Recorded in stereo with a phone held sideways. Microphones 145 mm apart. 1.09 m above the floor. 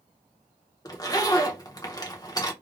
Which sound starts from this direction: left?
A zipper, at 0.8 s.